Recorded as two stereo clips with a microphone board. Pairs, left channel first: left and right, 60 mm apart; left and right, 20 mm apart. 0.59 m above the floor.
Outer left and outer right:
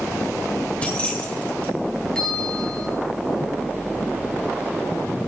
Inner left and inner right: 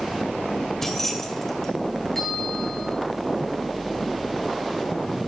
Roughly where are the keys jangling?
Left.